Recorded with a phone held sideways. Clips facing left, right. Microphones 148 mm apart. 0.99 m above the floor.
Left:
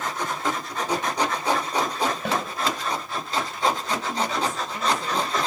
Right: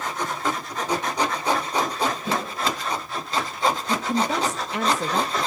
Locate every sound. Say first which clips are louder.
2.2 s a snare drum: even; 70° left (ahead or behind), 4.5 m
3.9 s a woman speaking: right 3 dB; 75° right (ahead or behind), 0.8 m